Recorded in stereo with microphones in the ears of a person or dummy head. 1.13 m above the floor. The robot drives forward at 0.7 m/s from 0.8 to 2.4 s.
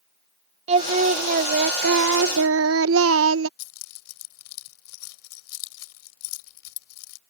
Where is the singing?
35° right (ahead or behind); by 3.5 s 65° right (ahead or behind).